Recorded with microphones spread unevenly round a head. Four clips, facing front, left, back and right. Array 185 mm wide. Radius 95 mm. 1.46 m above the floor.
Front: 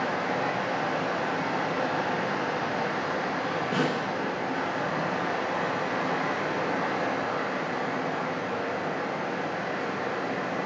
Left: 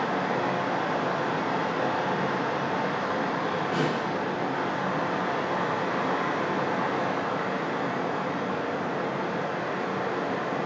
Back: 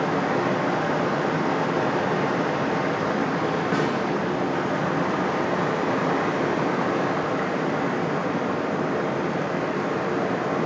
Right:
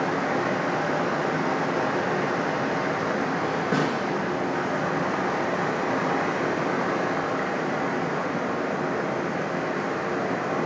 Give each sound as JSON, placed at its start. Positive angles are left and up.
{"t": 0.0, "sound": "running water", "azimuth_deg": -150, "distance_m": 0.9}
{"t": 3.7, "sound": "a snare drum", "azimuth_deg": -95, "distance_m": 1.9}